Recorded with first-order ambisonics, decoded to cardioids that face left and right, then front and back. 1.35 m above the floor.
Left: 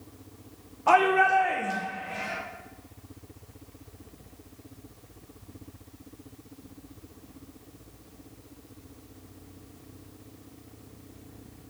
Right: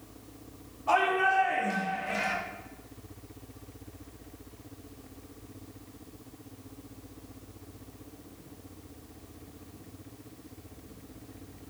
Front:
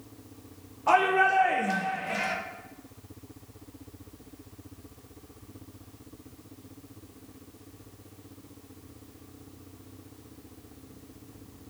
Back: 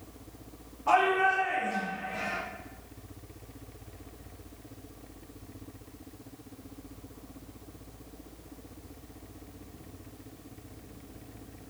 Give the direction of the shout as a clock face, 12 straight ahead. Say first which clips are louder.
Left 5 dB, front 2 dB; 10 o'clock.